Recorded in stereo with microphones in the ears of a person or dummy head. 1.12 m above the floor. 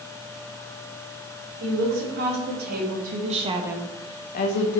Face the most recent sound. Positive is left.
turn(degrees=65)  # may be behind; listen again after turning